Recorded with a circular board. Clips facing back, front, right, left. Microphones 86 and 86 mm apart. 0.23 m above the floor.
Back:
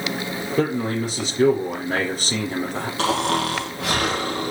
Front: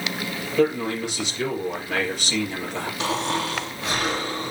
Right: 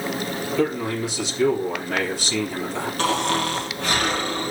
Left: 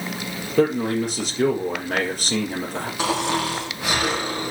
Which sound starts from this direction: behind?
Snoring, at 3.0 s.